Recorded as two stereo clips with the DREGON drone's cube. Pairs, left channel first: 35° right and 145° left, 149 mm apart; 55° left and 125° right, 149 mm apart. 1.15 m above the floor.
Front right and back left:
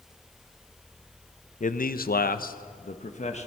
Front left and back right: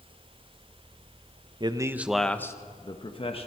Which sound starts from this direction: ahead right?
A man speaking, at 1.6 s.